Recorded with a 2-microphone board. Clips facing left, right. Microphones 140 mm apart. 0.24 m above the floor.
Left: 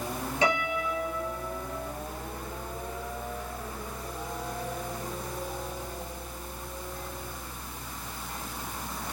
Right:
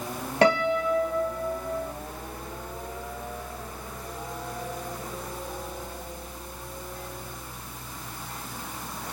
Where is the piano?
70° right (ahead or behind), 1.1 m.